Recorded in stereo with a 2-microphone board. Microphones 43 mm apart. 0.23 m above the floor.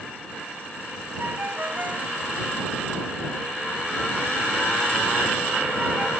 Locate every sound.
1.2 s a ringtone: 45° right (ahead or behind)